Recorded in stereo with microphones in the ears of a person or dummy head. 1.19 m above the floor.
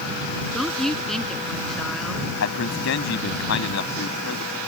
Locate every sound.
0.5 s a woman speaking: 5° left (ahead or behind)
2.4 s a man speaking: 75° left (ahead or behind)